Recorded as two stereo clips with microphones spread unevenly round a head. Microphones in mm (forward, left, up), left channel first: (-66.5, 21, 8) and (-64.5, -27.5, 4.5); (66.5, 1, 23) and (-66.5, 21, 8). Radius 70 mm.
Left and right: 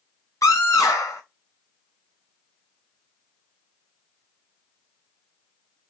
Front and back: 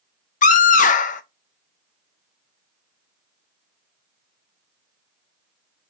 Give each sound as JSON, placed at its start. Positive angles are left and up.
{"t": 0.4, "sound": "a scream", "azimuth_deg": 25, "distance_m": 0.7}